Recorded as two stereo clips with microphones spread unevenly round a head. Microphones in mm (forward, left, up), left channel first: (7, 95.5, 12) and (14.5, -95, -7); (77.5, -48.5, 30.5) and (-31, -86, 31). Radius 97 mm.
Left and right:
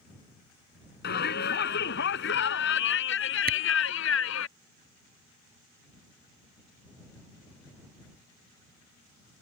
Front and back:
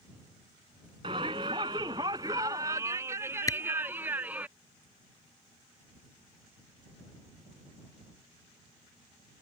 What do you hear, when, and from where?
1.0 s a shout: 135° left; by 4.5 s 115° left
3.5 s a camera shutter: 45° right